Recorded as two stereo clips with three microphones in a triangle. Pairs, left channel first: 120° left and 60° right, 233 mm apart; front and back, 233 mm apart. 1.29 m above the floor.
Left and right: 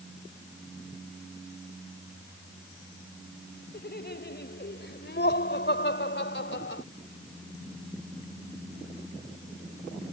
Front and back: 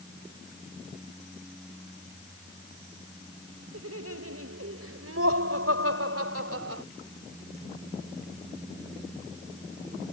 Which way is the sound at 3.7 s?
165° left.